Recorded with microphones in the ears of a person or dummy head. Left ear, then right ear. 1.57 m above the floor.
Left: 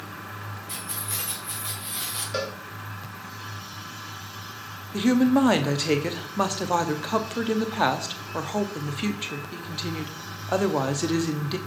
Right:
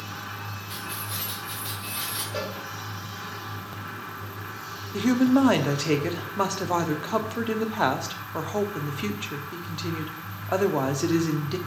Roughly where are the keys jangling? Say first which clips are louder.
Even; left.